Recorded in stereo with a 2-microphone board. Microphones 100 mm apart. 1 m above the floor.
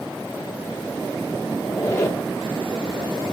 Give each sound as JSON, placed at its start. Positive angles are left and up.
{"t": 1.6, "sound": "a squeak", "side_deg": 30, "distance_m": 1.1}